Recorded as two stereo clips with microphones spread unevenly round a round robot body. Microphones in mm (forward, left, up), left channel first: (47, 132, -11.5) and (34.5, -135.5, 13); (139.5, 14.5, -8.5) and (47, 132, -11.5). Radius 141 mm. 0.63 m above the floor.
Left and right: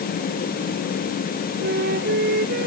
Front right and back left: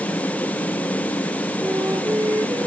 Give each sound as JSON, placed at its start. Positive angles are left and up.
{"t": 1.6, "sound": "a flute", "azimuth_deg": -150}